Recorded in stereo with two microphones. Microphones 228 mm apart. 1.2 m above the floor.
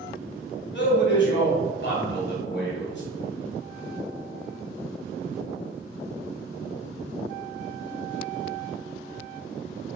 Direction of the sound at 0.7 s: 55° left (ahead or behind).